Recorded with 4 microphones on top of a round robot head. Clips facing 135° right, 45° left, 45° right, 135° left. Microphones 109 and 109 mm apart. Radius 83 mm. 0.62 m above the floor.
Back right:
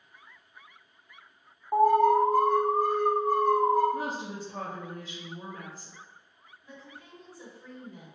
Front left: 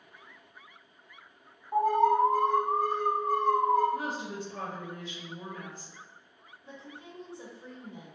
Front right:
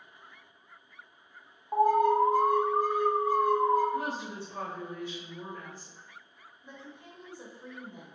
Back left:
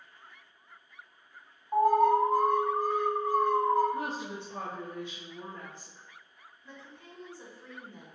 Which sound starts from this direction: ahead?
A woman speaking, at 6.6 s.